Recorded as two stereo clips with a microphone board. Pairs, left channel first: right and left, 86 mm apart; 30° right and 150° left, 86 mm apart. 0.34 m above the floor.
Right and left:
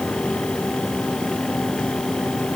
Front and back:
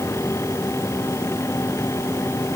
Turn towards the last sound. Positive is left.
No sound to turn to.